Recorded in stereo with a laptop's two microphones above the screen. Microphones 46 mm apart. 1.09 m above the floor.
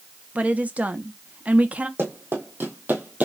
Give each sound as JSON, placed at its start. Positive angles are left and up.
{"t": 0.3, "sound": "a woman speaking", "side_deg": -30, "distance_m": 0.9}
{"t": 2.0, "sound": "running footsteps", "side_deg": -55, "distance_m": 2.0}